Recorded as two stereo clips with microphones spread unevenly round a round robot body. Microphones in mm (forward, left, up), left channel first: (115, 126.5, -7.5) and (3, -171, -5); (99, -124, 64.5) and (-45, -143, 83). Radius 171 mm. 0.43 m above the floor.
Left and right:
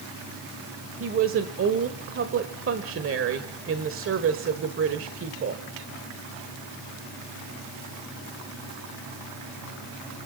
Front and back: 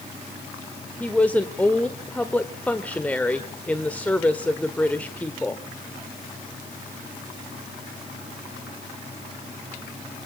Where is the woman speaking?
70° right, 1.5 m.